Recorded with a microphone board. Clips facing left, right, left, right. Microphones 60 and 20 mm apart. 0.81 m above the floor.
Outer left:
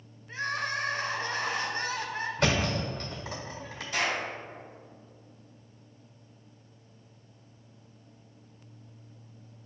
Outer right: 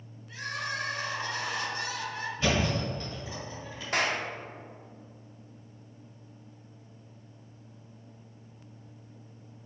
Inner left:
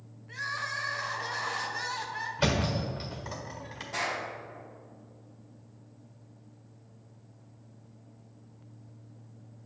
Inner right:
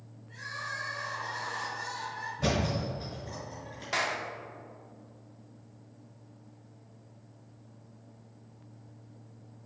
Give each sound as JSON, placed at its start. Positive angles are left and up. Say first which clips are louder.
{"t": 0.3, "sound": "crying", "louder": "outer left 3 dB, inner left 4 dB", "side_deg": 40, "distance_m": 0.9}
{"t": 2.4, "sound": "a thud", "louder": "even, inner left 1 dB", "side_deg": 80, "distance_m": 1.5}
{"t": 3.9, "sound": "a clap", "louder": "outer right 1 dB, inner right 2 dB", "side_deg": -55, "distance_m": 1.1}